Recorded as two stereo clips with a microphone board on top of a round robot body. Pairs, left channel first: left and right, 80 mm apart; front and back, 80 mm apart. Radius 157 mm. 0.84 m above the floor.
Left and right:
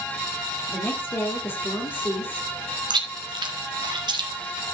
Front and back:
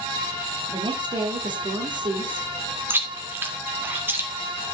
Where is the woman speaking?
155° left, 3 m.